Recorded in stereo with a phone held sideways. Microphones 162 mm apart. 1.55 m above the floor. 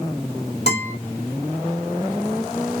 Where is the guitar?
40° left (ahead or behind), 2.5 m.